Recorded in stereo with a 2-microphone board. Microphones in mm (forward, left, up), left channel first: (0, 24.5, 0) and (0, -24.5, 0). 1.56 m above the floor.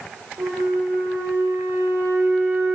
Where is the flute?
65° right (ahead or behind), 4.5 m.